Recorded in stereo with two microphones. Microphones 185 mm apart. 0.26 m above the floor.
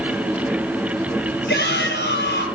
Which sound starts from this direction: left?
A shout, at 1.5 s.